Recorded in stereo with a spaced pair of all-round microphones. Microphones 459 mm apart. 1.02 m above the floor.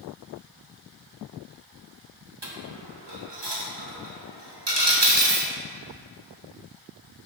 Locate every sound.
2.4 s a dropped coin: 55° right (ahead or behind), 1.1 m